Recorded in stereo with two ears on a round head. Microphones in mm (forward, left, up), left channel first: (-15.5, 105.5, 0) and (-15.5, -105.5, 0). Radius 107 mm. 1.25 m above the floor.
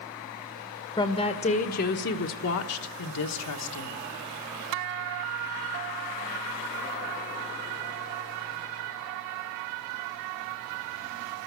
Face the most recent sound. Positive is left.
turn(degrees=85)